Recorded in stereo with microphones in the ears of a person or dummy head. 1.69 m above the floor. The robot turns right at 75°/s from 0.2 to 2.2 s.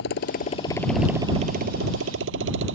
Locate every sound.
0.0 s a motorcycle: 65° left (ahead or behind); by 2.8 s 75° right (ahead or behind)